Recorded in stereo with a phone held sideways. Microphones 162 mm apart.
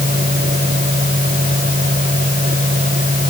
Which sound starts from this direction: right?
A fan, at 0.0 s.